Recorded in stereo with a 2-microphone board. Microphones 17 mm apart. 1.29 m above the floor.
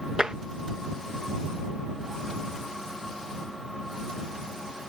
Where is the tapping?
45° right (ahead or behind).